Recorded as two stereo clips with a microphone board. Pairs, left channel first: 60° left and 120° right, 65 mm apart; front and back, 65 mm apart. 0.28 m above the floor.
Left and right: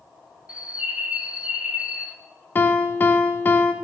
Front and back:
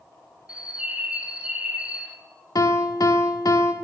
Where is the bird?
150° right, 0.7 m.